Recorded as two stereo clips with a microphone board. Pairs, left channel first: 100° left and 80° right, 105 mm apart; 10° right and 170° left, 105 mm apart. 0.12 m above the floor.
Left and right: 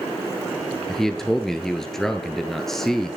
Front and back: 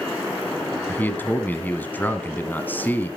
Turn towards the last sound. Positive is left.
turn(degrees=20)